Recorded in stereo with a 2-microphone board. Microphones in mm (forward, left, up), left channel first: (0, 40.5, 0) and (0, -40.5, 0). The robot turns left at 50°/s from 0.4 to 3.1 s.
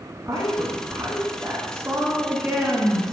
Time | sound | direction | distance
0.2 | a woman speaking | 55° right | 2 m